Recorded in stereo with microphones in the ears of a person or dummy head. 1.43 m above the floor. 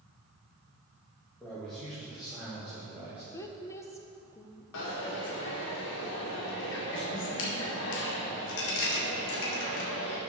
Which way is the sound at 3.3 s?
15° left (ahead or behind).